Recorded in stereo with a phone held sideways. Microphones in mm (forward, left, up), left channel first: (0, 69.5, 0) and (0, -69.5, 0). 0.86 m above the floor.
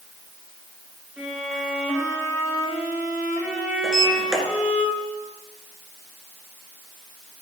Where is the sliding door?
5° right (ahead or behind), 2 m.